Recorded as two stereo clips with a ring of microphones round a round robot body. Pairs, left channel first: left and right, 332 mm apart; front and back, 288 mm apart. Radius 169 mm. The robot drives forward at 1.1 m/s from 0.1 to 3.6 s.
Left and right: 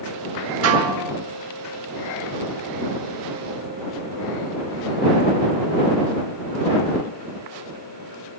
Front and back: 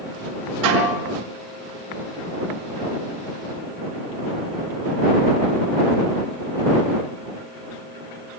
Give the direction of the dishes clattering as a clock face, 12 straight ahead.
5 o'clock.